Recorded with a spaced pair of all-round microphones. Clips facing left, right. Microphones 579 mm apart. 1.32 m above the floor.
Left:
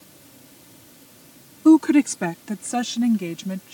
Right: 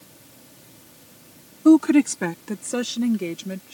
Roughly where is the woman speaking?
Centre.